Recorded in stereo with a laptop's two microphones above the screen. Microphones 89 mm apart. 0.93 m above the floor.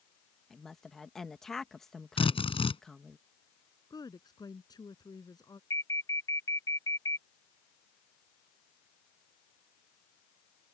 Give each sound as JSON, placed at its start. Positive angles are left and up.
{"t": 0.5, "sound": "a woman speaking", "side_deg": 5}
{"t": 2.2, "sound": "a drill", "side_deg": 90}
{"t": 3.9, "sound": "a woman speaking", "side_deg": 45}
{"t": 5.7, "sound": "an alarm", "side_deg": 40}